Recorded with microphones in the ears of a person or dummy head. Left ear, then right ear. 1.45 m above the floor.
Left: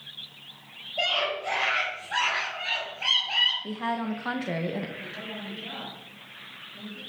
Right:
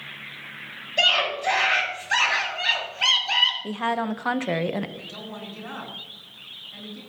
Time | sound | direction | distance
1.0 | a scream | 70° right (ahead or behind) | 8 m
3.6 | a woman speaking | 20° right (ahead or behind) | 0.7 m
5.0 | a woman speaking | 65° right (ahead or behind) | 8.5 m